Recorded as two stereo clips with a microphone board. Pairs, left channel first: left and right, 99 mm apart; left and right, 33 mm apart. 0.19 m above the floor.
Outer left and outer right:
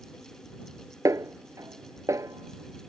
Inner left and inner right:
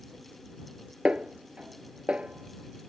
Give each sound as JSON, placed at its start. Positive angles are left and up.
{"t": 1.1, "sound": "a snare drum", "side_deg": -35}